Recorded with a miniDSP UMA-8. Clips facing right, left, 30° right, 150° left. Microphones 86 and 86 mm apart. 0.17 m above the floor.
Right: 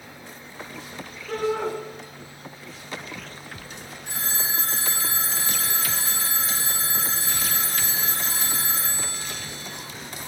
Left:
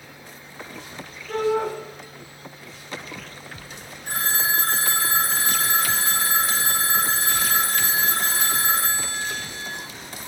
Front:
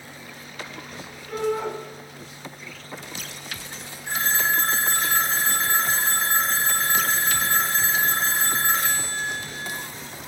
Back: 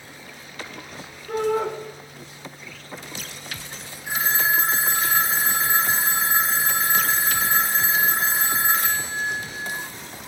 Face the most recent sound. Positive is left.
turn(degrees=70)